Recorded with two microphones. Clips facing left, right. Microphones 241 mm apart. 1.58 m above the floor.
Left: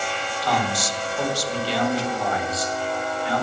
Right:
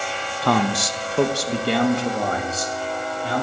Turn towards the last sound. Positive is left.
turn(degrees=-40)  # may be behind; listen again after turning